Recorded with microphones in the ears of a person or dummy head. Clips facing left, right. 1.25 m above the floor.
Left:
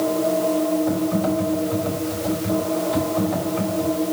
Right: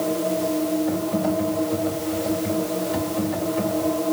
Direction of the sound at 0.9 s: 80° left.